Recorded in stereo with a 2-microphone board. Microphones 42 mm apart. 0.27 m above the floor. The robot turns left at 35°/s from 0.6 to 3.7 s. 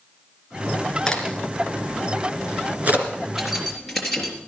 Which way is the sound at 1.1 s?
15° left (ahead or behind).